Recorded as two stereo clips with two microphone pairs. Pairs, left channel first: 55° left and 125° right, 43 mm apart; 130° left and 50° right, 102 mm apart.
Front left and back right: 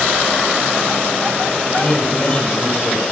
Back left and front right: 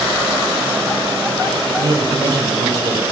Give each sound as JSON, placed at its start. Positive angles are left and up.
{"t": 1.7, "sound": "a man speaking", "azimuth_deg": 5, "distance_m": 4.0}